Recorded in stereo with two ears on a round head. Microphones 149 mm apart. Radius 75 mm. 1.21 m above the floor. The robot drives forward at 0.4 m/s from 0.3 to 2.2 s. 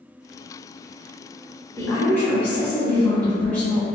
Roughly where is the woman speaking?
Centre.